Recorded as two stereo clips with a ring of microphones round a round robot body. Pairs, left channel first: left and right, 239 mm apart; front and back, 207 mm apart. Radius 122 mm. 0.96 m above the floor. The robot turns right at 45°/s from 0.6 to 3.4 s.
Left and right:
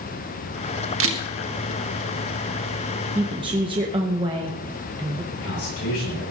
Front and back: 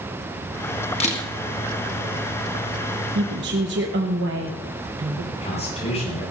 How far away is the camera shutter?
About 1.5 m.